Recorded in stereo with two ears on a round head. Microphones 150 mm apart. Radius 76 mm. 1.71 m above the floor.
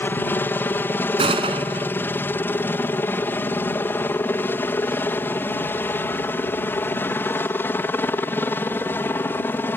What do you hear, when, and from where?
0.0 s a helicopter: 10° left (ahead or behind); by 9.8 s 15° left (ahead or behind)
1.2 s a gunshot: 30° right (ahead or behind)